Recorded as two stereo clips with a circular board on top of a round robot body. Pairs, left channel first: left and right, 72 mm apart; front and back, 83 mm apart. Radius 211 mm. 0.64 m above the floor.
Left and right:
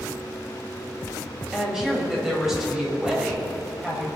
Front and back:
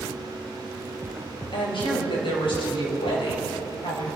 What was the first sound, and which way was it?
A woman speaking, 5° right.